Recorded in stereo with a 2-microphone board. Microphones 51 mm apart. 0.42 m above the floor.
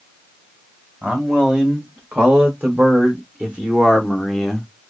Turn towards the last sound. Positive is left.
turn(degrees=10)  # may be behind; listen again after turning